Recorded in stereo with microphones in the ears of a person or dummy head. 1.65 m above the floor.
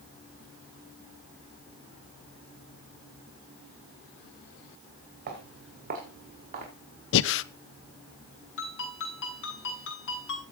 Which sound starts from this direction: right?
Footsteps, at 5.3 s.